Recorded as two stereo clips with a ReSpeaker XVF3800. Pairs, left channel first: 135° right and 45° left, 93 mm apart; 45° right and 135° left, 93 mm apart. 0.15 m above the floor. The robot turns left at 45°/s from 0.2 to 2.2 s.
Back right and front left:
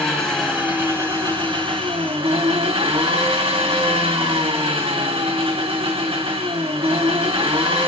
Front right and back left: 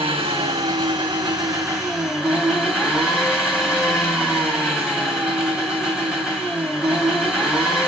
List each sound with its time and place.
0.0 s an engine running: 140° left, 3 m; by 7.9 s 50° left, 3 m